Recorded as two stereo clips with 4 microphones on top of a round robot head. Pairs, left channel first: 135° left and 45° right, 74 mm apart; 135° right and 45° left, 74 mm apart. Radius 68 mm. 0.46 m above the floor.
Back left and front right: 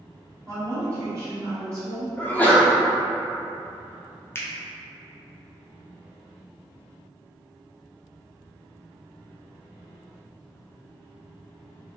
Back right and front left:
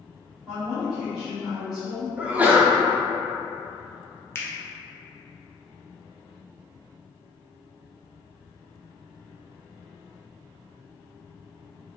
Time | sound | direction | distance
0.5 | a woman speaking | 45° right | 1.5 m
2.2 | a sneeze | 95° left | 1.1 m
4.3 | a finger snap | straight behind | 0.8 m